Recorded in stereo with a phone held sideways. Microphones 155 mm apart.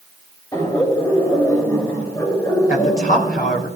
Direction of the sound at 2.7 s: 70° left (ahead or behind).